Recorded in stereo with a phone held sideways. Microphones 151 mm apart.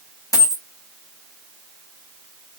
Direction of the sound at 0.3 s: 20° left (ahead or behind).